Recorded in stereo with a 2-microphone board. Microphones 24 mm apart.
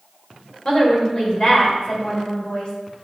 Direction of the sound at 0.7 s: 45° left (ahead or behind).